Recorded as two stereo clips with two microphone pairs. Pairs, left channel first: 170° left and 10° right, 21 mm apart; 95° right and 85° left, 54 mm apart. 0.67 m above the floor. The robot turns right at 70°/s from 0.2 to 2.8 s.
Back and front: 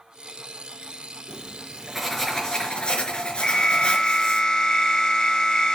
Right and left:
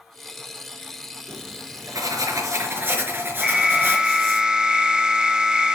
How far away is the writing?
About 4.5 m.